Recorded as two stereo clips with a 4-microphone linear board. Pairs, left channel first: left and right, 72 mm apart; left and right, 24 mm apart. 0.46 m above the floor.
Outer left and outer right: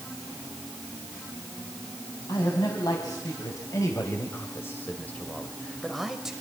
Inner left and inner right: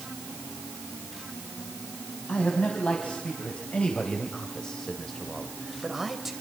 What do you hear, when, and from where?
2.3 s a man speaking: 70° left (ahead or behind), 4 m; by 6.3 s 10° right (ahead or behind), 2.5 m